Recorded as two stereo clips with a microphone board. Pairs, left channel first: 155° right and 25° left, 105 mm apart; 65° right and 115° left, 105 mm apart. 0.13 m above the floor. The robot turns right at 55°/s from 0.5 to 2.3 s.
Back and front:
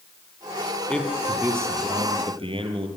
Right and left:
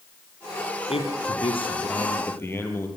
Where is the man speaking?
80° right, 3.5 m; by 2.9 s straight ahead, 3.5 m.